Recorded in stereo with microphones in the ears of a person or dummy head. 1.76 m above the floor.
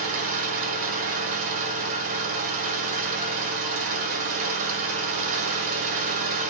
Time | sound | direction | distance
0.0 | an engine running | 50° right (ahead or behind) | 0.9 m